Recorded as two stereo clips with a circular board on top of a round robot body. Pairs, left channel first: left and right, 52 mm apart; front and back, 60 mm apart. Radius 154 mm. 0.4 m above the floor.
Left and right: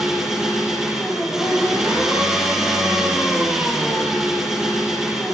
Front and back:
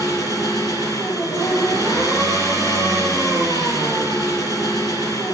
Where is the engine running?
10° right, 6 m.